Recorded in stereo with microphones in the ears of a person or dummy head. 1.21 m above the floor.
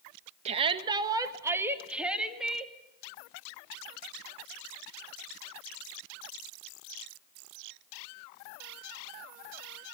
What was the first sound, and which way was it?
A shout, 35° right (ahead or behind).